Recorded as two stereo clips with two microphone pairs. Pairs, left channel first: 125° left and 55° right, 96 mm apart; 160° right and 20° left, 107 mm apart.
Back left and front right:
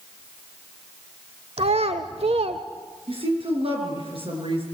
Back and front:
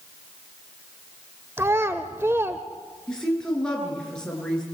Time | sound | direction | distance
1.6 | a child speaking | 50° right | 1.0 m
3.1 | a woman speaking | 80° right | 7.5 m